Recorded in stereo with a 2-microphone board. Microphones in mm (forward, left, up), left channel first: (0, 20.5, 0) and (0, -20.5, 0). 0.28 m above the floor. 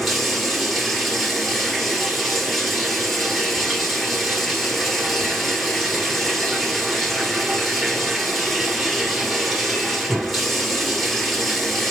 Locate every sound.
0.0 s running water: centre (ahead or behind), 1.4 m